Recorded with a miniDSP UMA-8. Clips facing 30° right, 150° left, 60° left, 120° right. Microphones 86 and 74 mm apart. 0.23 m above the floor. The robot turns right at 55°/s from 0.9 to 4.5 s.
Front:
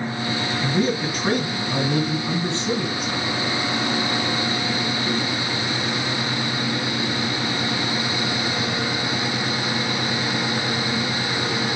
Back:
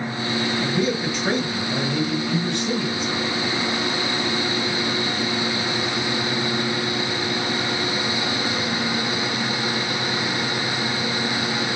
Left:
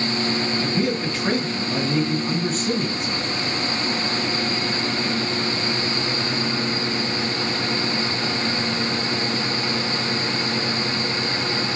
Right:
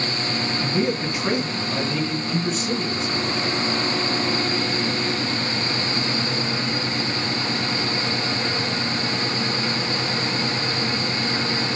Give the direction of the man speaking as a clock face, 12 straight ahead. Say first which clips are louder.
Front 4 dB, right 3 dB; 2 o'clock.